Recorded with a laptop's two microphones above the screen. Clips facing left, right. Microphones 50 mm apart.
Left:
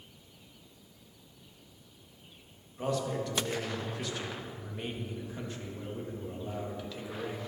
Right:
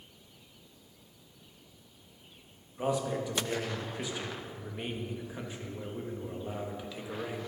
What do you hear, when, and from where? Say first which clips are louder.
2.8 s a man speaking: right 1 dB; 15° right (ahead or behind), 1.4 m